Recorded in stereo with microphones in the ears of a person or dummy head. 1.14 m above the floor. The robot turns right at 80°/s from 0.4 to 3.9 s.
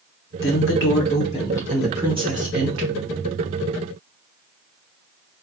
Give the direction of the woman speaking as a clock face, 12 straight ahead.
10 o'clock.